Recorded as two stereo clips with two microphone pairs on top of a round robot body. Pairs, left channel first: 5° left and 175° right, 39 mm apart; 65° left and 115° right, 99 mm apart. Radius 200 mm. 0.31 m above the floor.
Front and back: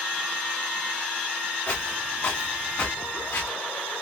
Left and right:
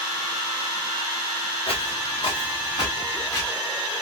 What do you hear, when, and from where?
1.7 s footsteps: 40° left, 2 m; by 3.5 s 10° left, 2 m